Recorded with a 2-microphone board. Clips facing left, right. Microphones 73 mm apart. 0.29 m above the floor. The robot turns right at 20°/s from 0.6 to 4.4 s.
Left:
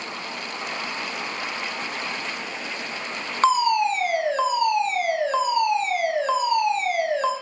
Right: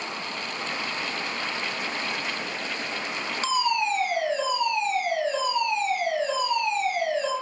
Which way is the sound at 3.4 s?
50° left (ahead or behind).